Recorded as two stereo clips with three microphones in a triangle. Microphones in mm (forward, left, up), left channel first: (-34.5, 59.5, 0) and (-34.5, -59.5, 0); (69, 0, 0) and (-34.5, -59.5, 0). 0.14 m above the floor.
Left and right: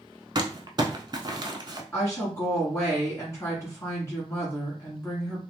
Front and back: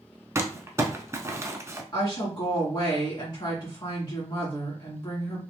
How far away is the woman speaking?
About 2.0 m.